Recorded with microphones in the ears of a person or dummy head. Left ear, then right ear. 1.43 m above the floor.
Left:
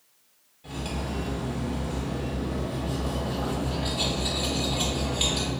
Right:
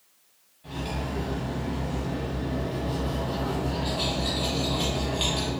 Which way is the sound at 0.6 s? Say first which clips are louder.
Right 1 dB; 5° left (ahead or behind).